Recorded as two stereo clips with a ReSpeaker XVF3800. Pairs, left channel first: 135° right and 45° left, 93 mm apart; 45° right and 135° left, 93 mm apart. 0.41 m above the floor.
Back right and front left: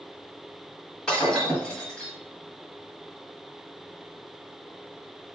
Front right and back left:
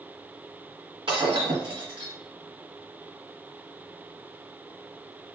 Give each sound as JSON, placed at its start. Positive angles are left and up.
{"t": 1.1, "sound": "breaking glass", "azimuth_deg": 145, "distance_m": 1.4}